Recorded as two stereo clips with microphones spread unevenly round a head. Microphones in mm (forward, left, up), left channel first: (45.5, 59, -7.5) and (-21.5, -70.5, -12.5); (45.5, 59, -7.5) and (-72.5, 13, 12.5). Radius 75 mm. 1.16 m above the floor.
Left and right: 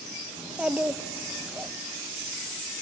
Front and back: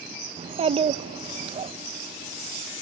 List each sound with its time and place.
0.4 s a child speaking: 160° left, 0.6 m